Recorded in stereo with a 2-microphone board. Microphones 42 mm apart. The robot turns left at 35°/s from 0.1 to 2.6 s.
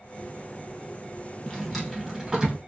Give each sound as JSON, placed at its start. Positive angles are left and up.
{"t": 1.4, "sound": "a drawer", "azimuth_deg": 15, "distance_m": 1.0}